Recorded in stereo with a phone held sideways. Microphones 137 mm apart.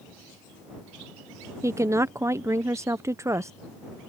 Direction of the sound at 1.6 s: 20° right (ahead or behind).